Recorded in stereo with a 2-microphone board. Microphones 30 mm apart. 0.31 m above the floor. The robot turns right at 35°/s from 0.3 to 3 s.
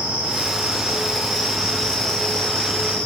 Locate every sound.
0.0 s an insect: 40° right, 7.5 m; by 3.1 s 50° left, 7.5 m